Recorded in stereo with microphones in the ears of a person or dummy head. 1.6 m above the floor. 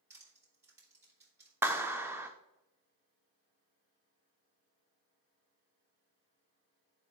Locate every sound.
0.1 s crushing: 20° right (ahead or behind), 2.5 m
1.6 s a clap: 10° right (ahead or behind), 0.5 m